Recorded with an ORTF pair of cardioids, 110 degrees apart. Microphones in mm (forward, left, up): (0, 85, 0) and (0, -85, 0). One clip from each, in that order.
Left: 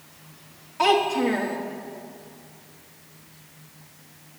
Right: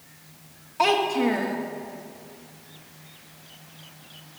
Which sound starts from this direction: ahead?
A child speaking, at 0.8 s.